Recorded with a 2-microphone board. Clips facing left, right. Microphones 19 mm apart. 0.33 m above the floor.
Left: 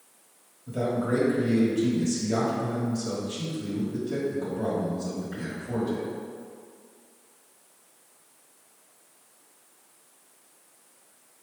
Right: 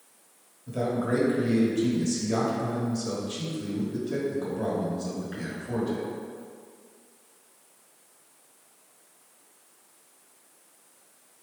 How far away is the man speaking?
About 1.2 m.